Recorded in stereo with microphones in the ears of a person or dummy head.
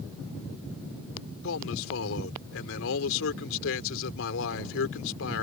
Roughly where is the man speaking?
Left.